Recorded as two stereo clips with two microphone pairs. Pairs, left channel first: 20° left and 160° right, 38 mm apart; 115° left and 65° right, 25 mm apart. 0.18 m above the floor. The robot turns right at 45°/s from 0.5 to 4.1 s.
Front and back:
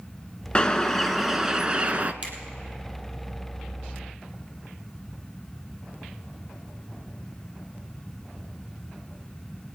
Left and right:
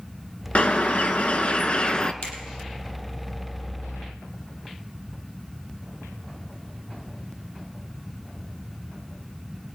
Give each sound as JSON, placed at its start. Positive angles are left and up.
{"t": 0.6, "sound": "a bird", "azimuth_deg": 90, "distance_m": 0.8}
{"t": 2.2, "sound": "a finger snap", "azimuth_deg": 155, "distance_m": 4.5}